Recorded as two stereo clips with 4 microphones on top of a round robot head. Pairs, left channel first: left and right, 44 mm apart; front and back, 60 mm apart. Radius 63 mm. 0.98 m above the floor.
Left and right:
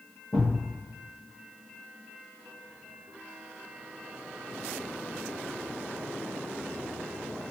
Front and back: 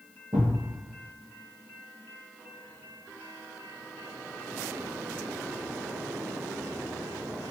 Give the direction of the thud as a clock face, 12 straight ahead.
7 o'clock.